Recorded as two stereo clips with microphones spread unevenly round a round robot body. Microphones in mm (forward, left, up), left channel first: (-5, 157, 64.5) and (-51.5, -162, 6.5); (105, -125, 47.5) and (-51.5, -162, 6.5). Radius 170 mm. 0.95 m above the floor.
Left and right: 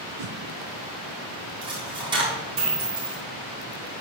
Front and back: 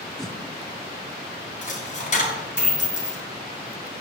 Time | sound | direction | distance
0.2 | a whoosh | 65° right | 0.9 m
1.6 | a dropped coin | 20° right | 4 m